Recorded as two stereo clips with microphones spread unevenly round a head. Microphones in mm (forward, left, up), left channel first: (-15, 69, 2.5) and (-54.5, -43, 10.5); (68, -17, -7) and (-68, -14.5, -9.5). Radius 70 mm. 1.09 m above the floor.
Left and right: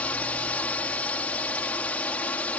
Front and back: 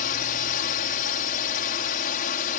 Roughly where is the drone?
Ahead.